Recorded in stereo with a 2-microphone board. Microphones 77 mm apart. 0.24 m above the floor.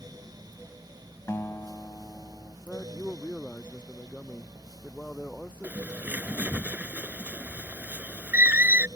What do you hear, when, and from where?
1.3 s a guitar: 35° left (ahead or behind)
2.7 s a man speaking: 15° left (ahead or behind)
5.6 s a bird: 25° right (ahead or behind)